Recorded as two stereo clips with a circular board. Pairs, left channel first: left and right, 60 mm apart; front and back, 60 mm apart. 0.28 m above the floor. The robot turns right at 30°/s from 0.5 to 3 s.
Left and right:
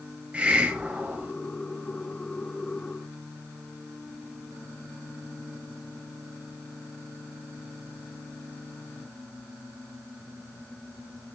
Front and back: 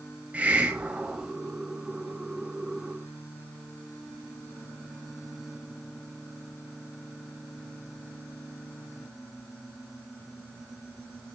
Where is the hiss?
140° right, 1.5 m; by 1.3 s 115° right, 1.5 m.